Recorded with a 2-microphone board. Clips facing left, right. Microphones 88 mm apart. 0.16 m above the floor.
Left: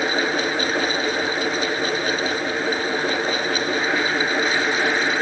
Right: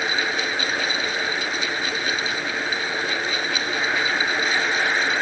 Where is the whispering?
I don't hear whispering.